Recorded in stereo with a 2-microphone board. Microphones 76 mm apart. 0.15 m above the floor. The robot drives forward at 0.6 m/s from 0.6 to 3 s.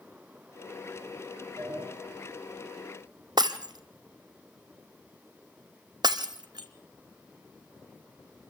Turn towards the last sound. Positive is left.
turn(degrees=-70)  # may be behind; listen again after turning